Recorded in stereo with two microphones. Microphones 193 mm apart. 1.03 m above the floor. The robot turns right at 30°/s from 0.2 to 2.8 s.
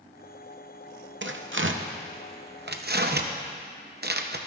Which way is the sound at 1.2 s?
75° right (ahead or behind).